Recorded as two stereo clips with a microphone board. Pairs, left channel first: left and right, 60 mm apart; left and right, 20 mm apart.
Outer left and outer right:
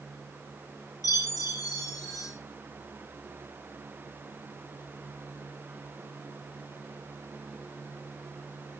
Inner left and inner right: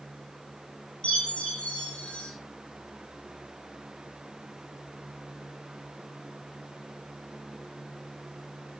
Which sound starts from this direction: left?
A chime, at 1.0 s.